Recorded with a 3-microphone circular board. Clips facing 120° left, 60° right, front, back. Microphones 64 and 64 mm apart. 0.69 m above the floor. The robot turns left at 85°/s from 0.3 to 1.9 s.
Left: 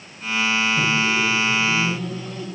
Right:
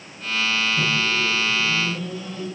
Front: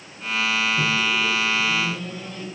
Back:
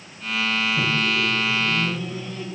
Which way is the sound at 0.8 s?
165° right.